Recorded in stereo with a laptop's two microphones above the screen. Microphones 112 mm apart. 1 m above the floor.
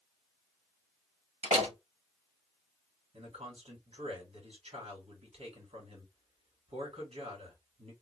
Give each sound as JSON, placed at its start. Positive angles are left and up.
{"t": 1.4, "sound": "a door slam", "side_deg": -80, "distance_m": 1.3}
{"t": 3.1, "sound": "a man speaking", "side_deg": -70, "distance_m": 2.5}